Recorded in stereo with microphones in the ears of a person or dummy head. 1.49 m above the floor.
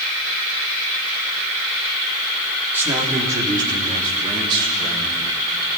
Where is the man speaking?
15° right (ahead or behind), 3 m; by 5.3 s 30° right (ahead or behind), 6 m.